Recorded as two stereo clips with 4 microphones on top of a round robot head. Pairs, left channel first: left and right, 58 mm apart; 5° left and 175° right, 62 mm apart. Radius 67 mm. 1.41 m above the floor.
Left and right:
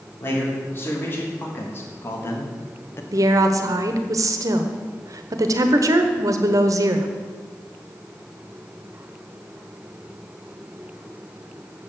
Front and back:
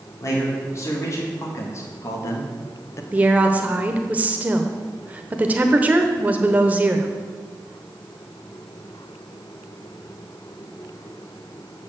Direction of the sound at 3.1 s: 110° right.